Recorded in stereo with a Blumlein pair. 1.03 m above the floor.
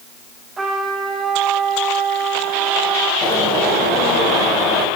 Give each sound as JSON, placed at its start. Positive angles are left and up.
{"t": 0.6, "sound": "a trumpet", "azimuth_deg": -15, "distance_m": 3.0}
{"t": 3.2, "sound": "a bird", "azimuth_deg": 20, "distance_m": 3.0}